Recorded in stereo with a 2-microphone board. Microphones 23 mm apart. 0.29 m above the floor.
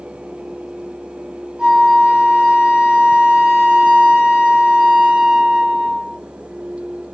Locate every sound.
1.6 s a flute: 45° right (ahead or behind), 0.9 m